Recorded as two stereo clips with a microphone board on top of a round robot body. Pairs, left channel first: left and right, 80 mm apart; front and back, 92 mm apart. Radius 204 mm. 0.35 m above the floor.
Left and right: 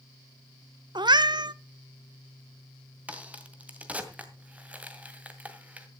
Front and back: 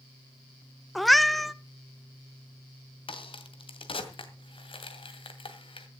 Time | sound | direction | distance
0.9 | a cat meowing | 90° right | 0.7 m
3.1 | a crack | 20° right | 2 m